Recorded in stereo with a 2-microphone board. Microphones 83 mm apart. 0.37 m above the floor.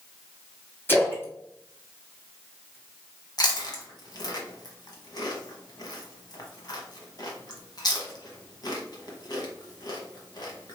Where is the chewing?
55° left (ahead or behind), 0.9 m.